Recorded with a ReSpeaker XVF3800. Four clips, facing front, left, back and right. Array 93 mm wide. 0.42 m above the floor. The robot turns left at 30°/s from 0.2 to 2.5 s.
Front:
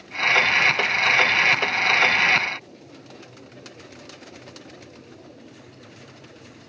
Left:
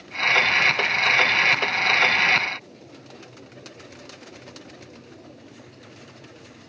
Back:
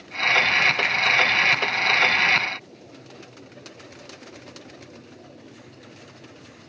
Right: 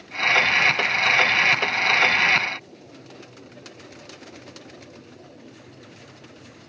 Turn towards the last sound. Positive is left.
turn(degrees=140)